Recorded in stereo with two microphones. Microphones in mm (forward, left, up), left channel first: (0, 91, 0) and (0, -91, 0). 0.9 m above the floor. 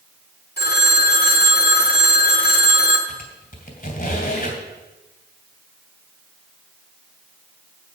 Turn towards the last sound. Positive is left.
turn(degrees=50)  # may be behind; listen again after turning